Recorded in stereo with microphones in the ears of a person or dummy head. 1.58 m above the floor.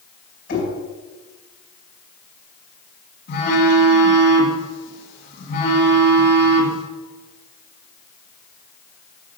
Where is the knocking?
55° left (ahead or behind), 5 m.